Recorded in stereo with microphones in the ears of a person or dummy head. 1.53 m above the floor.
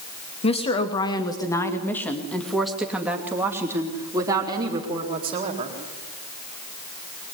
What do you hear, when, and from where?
0.4 s a woman speaking: 35° left (ahead or behind), 3 m; by 5.8 s 35° right (ahead or behind), 4.5 m